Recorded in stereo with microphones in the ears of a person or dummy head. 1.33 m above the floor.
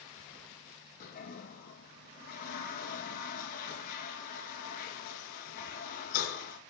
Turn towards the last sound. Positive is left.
turn(degrees=45)  # may be behind; listen again after turning